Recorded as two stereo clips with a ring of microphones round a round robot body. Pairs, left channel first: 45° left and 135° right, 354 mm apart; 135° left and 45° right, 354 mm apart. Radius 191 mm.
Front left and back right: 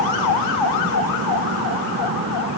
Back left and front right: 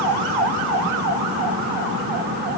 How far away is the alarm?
I don't hear an alarm.